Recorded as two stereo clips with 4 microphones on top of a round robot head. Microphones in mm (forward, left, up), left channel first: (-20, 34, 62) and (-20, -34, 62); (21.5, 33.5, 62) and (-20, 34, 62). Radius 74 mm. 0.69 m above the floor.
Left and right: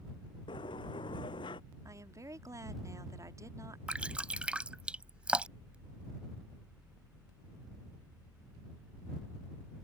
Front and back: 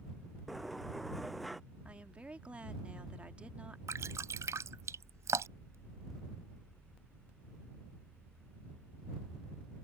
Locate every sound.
0.5 s a sliding door: 85° left
1.9 s a woman speaking: 125° right
3.9 s dripping: 165° right